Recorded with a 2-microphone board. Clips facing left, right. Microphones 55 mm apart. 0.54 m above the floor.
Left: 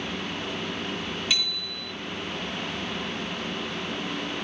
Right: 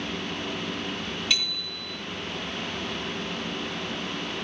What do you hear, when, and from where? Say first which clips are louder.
1.3 s a bicycle bell: even; 5° left (ahead or behind), 7 m